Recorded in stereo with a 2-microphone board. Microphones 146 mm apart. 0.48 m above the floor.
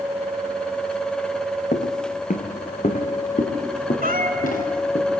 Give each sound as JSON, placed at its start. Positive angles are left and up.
{"t": 1.7, "sound": "footsteps", "side_deg": 60, "distance_m": 1.3}
{"t": 4.0, "sound": "a cat meowing", "side_deg": -80, "distance_m": 2.5}